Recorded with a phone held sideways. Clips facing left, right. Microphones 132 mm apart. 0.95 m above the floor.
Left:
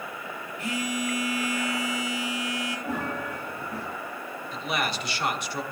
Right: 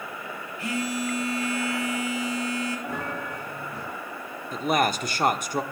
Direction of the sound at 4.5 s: 45° right (ahead or behind).